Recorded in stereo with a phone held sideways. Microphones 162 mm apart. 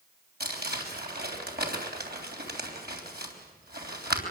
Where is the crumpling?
80° right, 3.5 m.